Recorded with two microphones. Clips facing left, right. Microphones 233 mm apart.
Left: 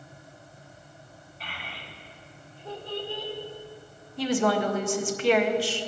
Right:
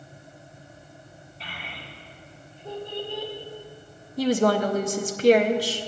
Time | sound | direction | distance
1.4 | a child speaking | 30° right (ahead or behind) | 3.5 m
4.2 | a woman speaking | 40° right (ahead or behind) | 0.9 m